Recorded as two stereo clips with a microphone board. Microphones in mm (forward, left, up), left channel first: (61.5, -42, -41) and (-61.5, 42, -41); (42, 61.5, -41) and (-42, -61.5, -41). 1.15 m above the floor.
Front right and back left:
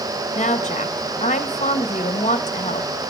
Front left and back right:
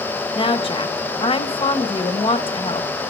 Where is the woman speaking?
5° left, 0.9 m.